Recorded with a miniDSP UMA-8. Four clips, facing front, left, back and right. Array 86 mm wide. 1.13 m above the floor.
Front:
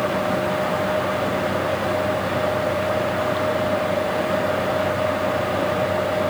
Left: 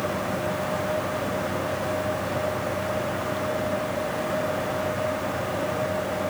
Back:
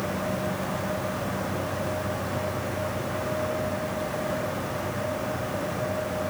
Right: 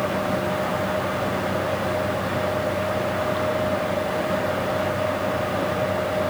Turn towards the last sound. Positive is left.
No sound to turn to.